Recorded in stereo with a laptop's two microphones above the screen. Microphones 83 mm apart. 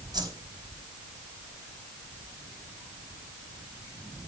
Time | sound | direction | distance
0.1 | a whoosh | 50° right (ahead or behind) | 4 m